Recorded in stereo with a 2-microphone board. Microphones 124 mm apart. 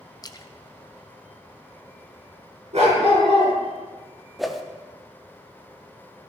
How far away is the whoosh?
About 1.0 m.